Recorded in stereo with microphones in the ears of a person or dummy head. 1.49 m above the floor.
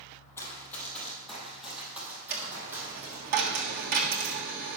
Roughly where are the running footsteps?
Centre.